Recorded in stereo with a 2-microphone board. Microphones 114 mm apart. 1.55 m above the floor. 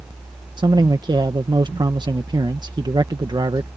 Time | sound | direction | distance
0.6 | a man speaking | 40° right (ahead or behind) | ?